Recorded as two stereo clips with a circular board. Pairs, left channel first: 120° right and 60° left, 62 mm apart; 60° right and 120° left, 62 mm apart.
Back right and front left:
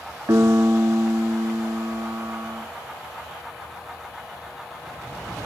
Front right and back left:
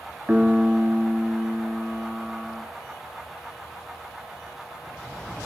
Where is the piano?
55° left, 1.4 m.